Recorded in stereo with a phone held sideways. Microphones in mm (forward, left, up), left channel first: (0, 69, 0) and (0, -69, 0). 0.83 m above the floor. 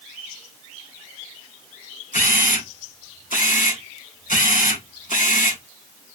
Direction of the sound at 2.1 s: 70° left (ahead or behind).